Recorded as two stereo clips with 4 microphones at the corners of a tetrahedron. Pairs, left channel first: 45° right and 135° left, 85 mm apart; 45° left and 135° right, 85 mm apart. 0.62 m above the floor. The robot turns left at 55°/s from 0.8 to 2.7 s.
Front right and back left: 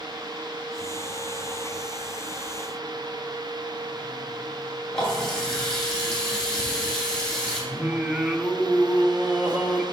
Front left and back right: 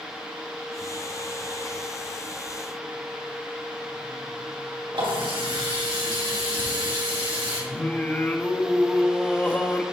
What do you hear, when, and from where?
4.9 s a running tap: 130° right, 2.5 m
7.7 s singing: 85° left, 0.6 m